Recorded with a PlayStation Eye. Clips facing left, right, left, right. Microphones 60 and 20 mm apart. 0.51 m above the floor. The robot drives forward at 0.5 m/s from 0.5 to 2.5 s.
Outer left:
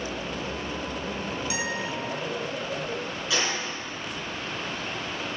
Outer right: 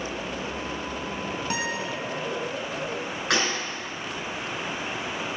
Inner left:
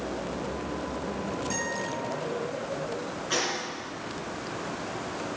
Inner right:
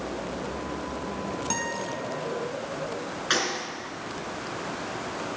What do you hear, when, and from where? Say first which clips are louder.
1.5 s a guitar: outer right 2 dB, inner right 2 dB; 45° right (ahead or behind), 3 m
3.3 s a gunshot: outer right 3 dB, inner right 3 dB; 60° right (ahead or behind), 4 m